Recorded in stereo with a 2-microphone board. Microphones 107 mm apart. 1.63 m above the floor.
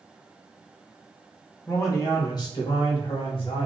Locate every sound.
1.7 s a man speaking: 25° left (ahead or behind), 1.2 m; by 3.6 s 60° left (ahead or behind), 1.9 m